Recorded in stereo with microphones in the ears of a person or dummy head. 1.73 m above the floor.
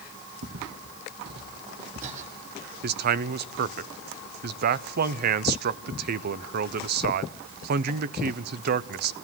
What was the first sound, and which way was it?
Footsteps, 70° right (ahead or behind).